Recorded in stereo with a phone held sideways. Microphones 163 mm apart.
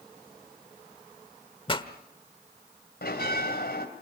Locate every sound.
1.7 s a pop: 30° left (ahead or behind), 1.2 m
3.0 s a bell: 80° left, 3.5 m